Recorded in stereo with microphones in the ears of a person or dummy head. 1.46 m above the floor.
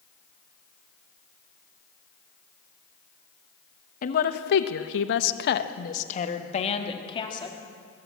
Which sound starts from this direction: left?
A woman speaking, at 4.0 s.